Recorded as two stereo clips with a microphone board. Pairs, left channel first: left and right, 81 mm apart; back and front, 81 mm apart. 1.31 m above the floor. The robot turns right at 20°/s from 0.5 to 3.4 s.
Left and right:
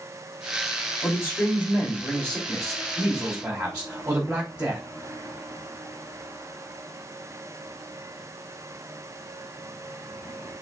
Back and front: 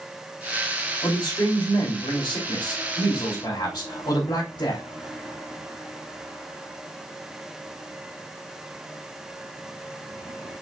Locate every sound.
1.0 s a man speaking: 145° left, 3 m; by 4.8 s 170° right, 3 m